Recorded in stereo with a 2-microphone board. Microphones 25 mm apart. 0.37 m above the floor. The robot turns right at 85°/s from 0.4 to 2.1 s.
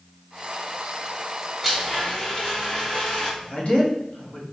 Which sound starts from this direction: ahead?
A blender, at 1.6 s.